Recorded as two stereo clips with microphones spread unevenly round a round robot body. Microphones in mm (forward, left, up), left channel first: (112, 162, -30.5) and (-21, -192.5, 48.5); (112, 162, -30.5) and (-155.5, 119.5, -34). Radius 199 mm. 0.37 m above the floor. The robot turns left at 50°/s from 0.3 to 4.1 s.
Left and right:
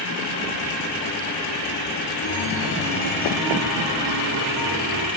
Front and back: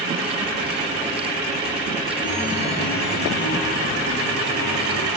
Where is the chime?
50° left, 2.5 m; by 5.1 s 45° right, 2.5 m.